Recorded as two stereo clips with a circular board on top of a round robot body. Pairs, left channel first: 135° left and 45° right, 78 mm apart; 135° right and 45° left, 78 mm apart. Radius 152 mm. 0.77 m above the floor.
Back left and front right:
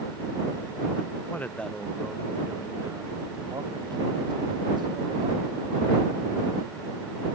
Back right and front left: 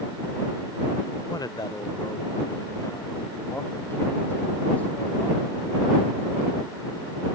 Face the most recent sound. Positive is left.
turn(degrees=-60)